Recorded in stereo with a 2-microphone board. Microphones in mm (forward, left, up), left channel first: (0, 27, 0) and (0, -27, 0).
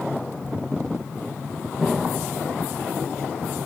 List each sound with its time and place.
1.8 s an explosion: centre (ahead or behind), 0.9 m